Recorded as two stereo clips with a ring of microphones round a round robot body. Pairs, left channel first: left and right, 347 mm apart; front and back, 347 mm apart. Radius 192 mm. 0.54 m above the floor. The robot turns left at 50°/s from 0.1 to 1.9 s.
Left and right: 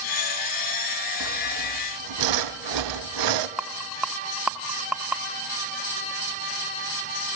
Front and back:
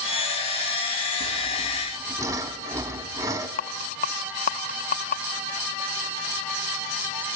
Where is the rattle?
10° right, 0.9 m.